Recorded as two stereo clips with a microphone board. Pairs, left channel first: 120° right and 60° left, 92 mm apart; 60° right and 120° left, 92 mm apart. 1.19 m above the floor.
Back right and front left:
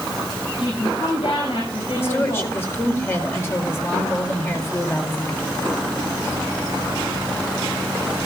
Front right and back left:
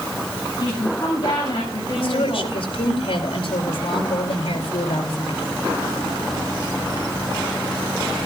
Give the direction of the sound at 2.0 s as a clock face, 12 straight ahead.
2 o'clock.